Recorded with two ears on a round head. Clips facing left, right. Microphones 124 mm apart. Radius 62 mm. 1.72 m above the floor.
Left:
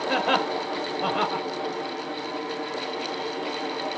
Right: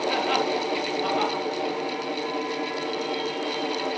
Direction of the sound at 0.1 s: 75° left (ahead or behind).